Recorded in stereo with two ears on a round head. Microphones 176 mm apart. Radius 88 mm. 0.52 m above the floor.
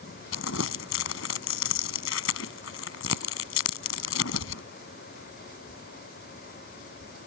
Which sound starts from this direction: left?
Crumpling, at 0.3 s.